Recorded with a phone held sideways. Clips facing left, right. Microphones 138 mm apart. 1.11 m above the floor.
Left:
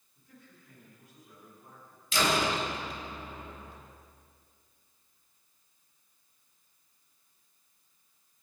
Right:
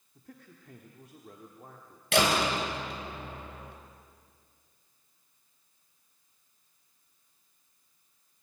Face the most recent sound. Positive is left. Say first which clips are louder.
# right 2 dB
turn(degrees=-70)  # may be behind; listen again after turning